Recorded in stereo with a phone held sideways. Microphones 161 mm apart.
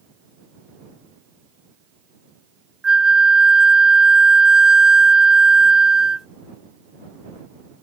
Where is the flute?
5° right (ahead or behind).